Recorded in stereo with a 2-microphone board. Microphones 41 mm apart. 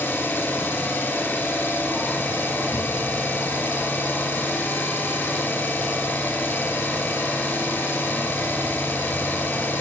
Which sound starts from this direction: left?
An engine running, at 0.0 s.